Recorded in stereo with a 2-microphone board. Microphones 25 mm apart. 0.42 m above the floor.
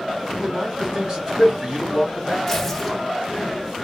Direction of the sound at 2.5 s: 15° left (ahead or behind).